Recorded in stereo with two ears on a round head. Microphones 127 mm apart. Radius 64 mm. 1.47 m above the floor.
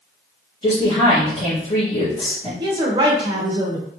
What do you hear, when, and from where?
0.6 s a woman speaking: 25° left (ahead or behind), 2 m
2.6 s a woman speaking: 30° right (ahead or behind), 1.2 m